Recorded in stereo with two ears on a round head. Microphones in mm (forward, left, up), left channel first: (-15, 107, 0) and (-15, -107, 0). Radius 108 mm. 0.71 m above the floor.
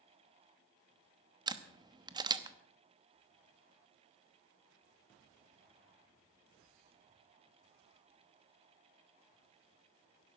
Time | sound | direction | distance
1.5 | a camera shutter | 20° right (ahead or behind) | 0.9 m